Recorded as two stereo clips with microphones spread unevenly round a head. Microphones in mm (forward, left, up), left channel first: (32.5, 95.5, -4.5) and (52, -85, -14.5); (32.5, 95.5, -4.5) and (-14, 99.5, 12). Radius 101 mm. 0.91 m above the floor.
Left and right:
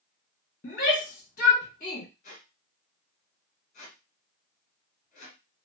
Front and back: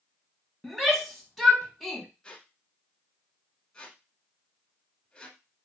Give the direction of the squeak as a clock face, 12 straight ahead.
9 o'clock.